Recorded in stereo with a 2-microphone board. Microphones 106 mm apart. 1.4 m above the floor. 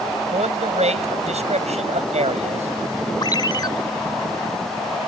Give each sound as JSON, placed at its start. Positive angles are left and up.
{"t": 0.3, "sound": "a man speaking", "side_deg": -80}
{"t": 3.2, "sound": "a ringtone", "side_deg": 40}